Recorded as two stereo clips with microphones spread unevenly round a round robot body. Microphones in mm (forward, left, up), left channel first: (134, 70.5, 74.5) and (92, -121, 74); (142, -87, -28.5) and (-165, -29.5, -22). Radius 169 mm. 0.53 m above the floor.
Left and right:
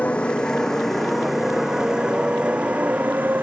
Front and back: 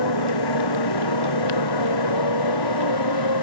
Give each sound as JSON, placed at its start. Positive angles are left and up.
{"t": 0.0, "sound": "a motorcycle", "azimuth_deg": -5}